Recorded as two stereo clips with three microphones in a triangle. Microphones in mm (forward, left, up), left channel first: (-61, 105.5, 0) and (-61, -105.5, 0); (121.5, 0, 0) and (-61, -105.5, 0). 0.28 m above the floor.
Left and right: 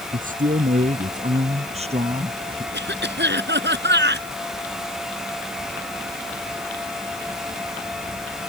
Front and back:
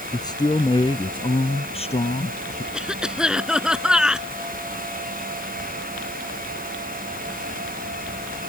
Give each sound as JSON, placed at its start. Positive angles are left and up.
{"t": 0.1, "sound": "a man speaking", "azimuth_deg": -40}
{"t": 2.7, "sound": "a cough", "azimuth_deg": -65}